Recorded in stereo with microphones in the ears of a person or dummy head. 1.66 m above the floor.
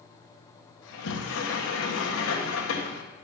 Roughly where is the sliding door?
Left.